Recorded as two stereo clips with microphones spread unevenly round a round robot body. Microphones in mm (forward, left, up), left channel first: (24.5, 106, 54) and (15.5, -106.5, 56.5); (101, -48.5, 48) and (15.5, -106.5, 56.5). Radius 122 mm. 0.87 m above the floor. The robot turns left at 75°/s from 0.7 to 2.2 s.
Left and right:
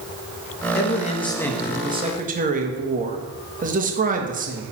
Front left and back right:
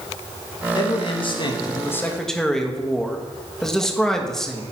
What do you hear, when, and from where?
0.8 s a man speaking: 60° left, 1.3 m; by 4.6 s 50° right, 1.3 m